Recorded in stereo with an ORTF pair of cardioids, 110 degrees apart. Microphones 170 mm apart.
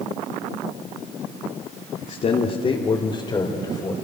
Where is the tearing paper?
I don't hear tearing paper.